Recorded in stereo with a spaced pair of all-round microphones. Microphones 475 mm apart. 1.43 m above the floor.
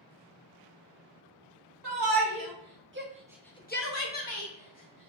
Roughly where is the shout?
Right.